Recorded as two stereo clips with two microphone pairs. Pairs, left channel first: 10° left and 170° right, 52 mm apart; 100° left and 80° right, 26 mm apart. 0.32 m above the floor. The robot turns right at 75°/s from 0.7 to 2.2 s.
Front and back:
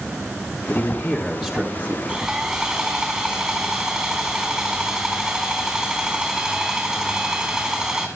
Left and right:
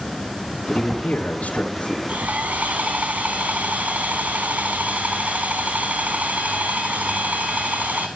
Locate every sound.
0.7 s a man speaking: 45° left, 3.5 m; by 2.0 s 140° left, 3.5 m
2.1 s sawing: 100° right, 3.5 m; by 8.1 s 90° right, 3.5 m